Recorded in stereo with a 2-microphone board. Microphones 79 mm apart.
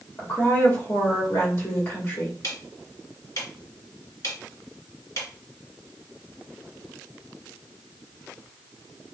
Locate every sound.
0.2 s a woman speaking: 35° left (ahead or behind), 1.5 m
2.4 s ticking: 50° left (ahead or behind), 1.3 m